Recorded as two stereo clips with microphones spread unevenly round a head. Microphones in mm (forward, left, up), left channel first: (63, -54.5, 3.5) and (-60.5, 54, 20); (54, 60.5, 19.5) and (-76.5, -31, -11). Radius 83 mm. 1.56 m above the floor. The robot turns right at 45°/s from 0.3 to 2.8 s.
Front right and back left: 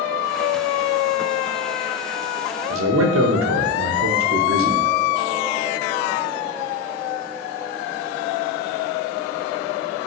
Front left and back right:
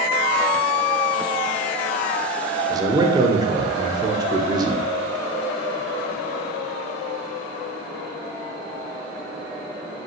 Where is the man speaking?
145° left, 0.5 m; by 4.9 s 150° left, 0.5 m.